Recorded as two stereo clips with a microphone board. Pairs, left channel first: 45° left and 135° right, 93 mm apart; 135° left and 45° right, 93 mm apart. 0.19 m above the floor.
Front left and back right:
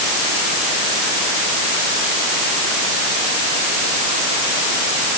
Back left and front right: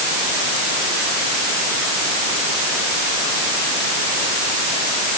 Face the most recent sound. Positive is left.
No sound to turn to.